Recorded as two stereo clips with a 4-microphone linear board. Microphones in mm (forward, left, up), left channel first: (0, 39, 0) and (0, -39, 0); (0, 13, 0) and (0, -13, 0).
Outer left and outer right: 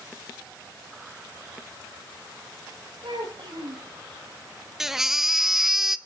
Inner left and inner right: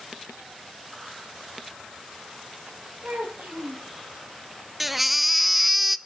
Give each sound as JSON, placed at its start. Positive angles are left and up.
{"t": 3.0, "sound": "a child speaking", "side_deg": -80, "distance_m": 6.0}
{"t": 4.8, "sound": "a baby crying", "side_deg": -5, "distance_m": 0.5}